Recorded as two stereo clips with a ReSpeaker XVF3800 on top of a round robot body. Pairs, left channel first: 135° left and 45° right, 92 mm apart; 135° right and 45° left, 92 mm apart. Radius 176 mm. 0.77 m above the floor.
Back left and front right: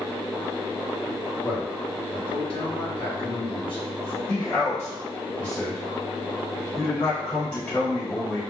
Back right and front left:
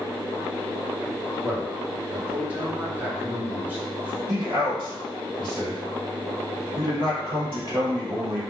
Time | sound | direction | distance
1.4 | a man speaking | 120° left | 1.8 m
4.3 | a man speaking | 75° left | 1.8 m